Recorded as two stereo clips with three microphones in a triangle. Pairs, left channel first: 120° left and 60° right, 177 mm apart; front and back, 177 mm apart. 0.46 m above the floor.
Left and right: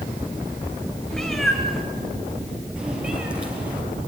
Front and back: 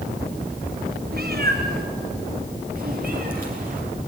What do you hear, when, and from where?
1.1 s a cat meowing: 155° right, 4.5 m; by 3.8 s 140° right, 6 m